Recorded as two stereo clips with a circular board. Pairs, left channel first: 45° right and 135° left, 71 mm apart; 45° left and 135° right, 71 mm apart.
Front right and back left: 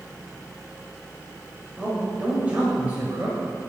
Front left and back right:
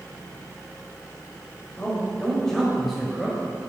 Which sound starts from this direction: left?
A man speaking, at 1.8 s.